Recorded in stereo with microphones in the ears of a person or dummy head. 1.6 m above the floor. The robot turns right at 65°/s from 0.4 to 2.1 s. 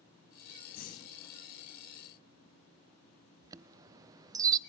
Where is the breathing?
130° left, 0.8 m; by 1.3 s 170° left, 0.8 m.